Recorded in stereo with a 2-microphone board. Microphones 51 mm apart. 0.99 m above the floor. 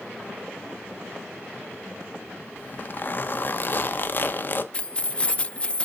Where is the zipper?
40° left (ahead or behind), 0.9 m.